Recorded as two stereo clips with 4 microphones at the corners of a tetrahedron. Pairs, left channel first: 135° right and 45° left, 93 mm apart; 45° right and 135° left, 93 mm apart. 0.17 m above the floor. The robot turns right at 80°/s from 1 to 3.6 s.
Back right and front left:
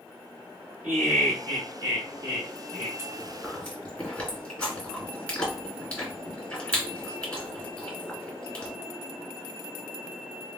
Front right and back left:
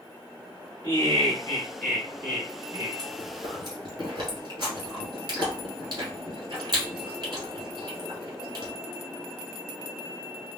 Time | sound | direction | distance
0.8 | laughter | 30° right | 2 m
3.0 | chewing | 105° left | 2.5 m